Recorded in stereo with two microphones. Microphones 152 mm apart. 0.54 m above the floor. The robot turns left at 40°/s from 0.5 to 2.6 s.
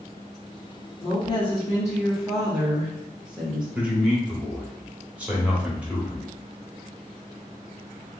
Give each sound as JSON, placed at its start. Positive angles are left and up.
{"t": 1.0, "sound": "a woman speaking", "azimuth_deg": 55, "distance_m": 1.0}
{"t": 3.8, "sound": "a man speaking", "side_deg": -10, "distance_m": 1.1}